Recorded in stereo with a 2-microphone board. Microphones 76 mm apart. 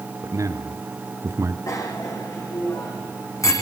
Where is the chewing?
No chewing in this recording.